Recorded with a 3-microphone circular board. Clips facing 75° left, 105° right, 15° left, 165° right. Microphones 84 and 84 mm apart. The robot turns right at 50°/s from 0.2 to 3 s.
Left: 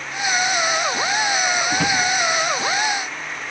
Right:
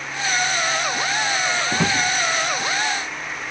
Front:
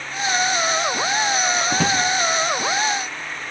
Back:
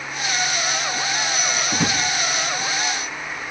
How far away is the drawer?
About 4 m.